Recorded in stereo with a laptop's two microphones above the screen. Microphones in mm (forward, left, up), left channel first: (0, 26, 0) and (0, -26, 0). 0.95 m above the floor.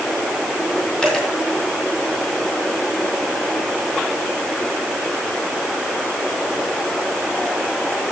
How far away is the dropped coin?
About 2.5 m.